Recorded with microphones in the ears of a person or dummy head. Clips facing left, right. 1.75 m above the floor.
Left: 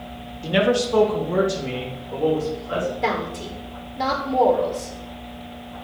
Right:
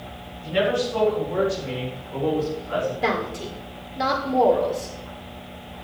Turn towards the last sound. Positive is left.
turn(degrees=-5)  # may be behind; listen again after turning